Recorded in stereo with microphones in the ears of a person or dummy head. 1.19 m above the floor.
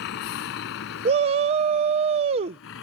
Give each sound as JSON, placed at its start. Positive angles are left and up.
{"t": 0.0, "sound": "a vehicle", "side_deg": 60}
{"t": 1.1, "sound": "a shout", "side_deg": -30}